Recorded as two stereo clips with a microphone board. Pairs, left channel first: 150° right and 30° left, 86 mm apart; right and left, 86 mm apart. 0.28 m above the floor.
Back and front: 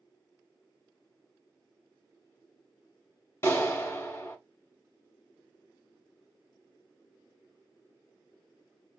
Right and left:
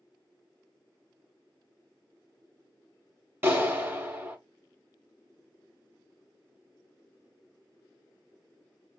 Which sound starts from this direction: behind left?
A clap, at 3.4 s.